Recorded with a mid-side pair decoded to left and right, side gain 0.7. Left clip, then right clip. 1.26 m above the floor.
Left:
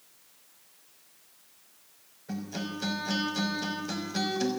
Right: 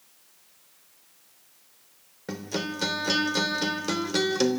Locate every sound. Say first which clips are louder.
2.3 s a guitar: right 6 dB; 60° right, 3 m